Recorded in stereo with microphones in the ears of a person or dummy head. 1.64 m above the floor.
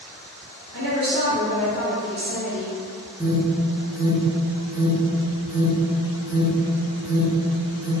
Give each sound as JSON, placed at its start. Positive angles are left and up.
{"t": 0.7, "sound": "a woman speaking", "side_deg": -85, "distance_m": 1.9}
{"t": 3.2, "sound": "an alarm", "side_deg": -10, "distance_m": 0.7}